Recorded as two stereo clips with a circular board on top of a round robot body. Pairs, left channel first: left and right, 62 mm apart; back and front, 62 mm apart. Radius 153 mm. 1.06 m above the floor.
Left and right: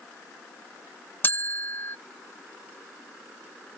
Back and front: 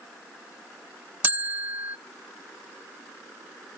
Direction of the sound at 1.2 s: 50° left.